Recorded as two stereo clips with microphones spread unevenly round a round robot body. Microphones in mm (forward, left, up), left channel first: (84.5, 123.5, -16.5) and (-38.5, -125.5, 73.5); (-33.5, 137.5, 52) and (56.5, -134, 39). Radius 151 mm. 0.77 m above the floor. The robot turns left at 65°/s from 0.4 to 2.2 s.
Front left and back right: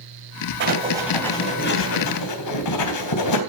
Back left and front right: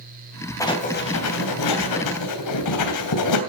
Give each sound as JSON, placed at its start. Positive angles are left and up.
{"t": 0.6, "sound": "writing", "azimuth_deg": -170, "distance_m": 3.0}